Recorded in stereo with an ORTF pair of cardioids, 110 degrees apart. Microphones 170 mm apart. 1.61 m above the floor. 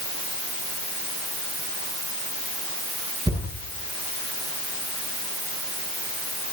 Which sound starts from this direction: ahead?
A thud, at 3.3 s.